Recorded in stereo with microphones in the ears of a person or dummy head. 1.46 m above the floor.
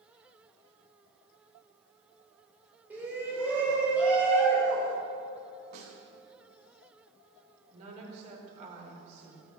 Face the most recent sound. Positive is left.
turn(degrees=-40)  # may be behind; listen again after turning